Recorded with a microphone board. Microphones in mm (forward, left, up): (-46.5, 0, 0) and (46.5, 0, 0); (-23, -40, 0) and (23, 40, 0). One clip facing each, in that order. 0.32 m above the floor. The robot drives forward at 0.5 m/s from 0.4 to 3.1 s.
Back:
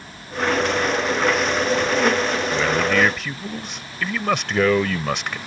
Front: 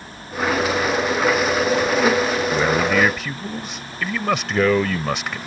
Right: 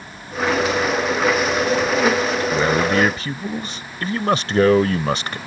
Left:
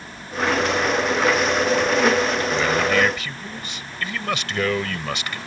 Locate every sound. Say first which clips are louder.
2.5 s a man speaking: front 1 dB, right 3 dB; 65° right; by 5.4 s 90° right